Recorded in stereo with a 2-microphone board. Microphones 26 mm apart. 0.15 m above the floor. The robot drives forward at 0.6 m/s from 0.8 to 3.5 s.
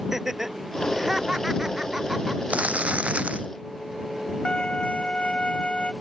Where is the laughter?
15° right (ahead or behind).